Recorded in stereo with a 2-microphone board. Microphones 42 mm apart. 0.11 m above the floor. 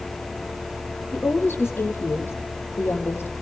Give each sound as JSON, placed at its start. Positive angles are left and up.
{"t": 1.1, "sound": "a woman speaking", "side_deg": 55, "distance_m": 4.0}